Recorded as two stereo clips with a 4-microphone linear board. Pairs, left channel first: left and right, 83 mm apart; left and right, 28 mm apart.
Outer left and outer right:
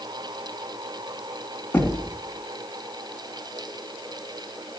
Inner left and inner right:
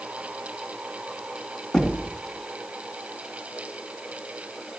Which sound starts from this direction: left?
Knocking, at 1.7 s.